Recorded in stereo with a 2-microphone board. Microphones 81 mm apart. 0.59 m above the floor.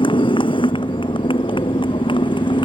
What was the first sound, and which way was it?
A motorcycle, 85° left.